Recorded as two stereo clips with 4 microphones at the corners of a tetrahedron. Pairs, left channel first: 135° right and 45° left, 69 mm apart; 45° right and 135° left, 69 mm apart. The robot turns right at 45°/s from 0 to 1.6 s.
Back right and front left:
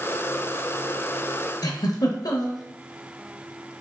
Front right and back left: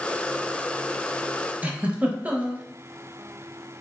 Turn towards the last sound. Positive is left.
turn(degrees=-155)